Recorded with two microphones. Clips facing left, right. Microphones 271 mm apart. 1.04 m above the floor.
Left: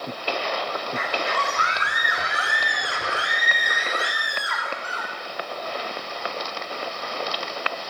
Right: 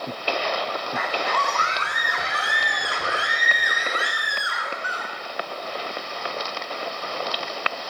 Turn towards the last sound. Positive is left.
turn(degrees=-15)  # may be behind; listen again after turning